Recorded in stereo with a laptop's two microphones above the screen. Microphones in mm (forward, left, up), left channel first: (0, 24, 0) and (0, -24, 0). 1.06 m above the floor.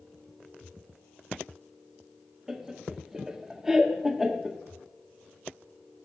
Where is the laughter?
10° right (ahead or behind), 1.5 m.